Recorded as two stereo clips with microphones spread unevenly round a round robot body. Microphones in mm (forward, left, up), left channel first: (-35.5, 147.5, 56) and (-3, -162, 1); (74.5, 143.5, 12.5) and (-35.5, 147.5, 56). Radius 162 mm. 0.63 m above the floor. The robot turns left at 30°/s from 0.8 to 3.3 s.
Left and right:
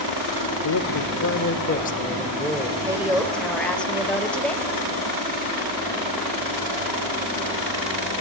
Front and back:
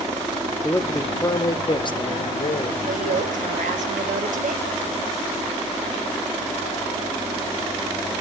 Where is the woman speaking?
160° right, 2.5 m; by 4.6 s 175° right, 2.5 m.